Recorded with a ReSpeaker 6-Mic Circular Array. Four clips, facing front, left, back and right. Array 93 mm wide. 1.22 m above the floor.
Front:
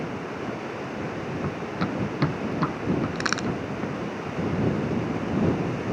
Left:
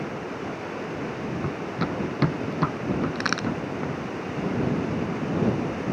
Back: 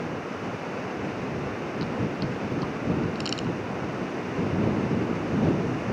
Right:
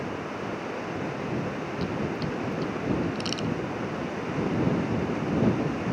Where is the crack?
50° left.